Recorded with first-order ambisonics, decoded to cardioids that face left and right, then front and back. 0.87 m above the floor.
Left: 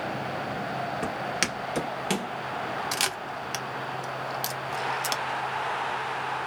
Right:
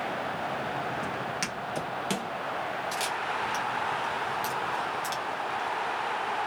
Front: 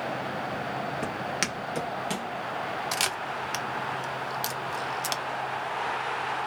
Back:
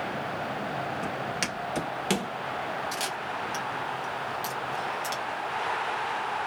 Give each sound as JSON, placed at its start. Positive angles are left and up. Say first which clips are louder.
{"t": 1.0, "sound": "footsteps", "louder": "left 3 dB, front 1 dB", "azimuth_deg": 50, "distance_m": 1.1}
{"t": 2.9, "sound": "a camera shutter", "louder": "left 1 dB, front 2 dB", "azimuth_deg": 45, "distance_m": 0.5}